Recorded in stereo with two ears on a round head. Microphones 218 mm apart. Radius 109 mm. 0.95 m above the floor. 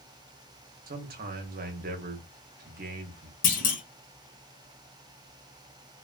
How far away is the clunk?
About 0.9 m.